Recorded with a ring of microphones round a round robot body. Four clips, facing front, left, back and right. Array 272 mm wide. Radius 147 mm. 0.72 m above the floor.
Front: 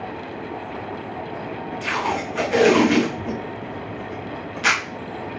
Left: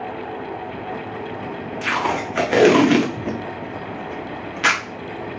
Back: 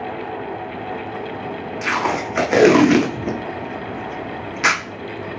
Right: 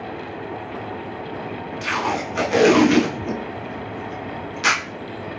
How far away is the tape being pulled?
About 0.9 m.